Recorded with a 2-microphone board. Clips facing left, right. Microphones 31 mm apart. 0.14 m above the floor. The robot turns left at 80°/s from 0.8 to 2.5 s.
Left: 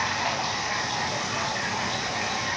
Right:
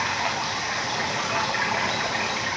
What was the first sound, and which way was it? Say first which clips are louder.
Running water: right 1 dB; 25° right.